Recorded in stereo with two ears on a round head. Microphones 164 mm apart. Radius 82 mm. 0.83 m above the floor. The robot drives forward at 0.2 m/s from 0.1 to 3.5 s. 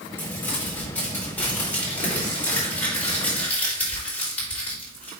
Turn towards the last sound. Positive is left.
turn(degrees=10)  # may be behind; listen again after turning